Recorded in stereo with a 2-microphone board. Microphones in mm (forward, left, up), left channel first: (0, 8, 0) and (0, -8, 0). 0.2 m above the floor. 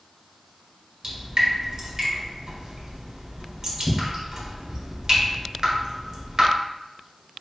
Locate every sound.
1.0 s dripping: 50° right (ahead or behind), 1.9 m